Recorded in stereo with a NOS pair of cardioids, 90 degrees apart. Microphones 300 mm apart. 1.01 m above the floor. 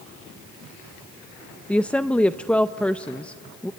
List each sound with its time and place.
1.7 s a woman speaking: 5° left, 0.5 m